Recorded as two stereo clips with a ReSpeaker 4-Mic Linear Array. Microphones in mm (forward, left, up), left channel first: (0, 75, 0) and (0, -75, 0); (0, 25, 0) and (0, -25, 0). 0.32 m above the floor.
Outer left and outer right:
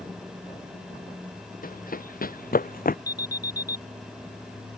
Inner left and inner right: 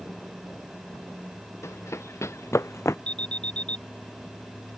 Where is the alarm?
25° left (ahead or behind).